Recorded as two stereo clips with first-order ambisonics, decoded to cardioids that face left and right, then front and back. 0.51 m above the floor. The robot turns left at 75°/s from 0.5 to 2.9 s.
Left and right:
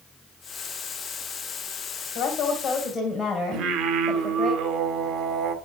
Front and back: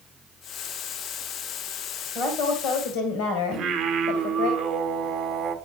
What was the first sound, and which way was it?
A woman speaking, 60° left.